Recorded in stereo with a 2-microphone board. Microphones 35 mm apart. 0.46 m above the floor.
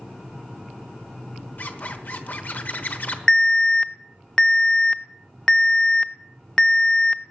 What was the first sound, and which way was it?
A zipper, 55° left (ahead or behind).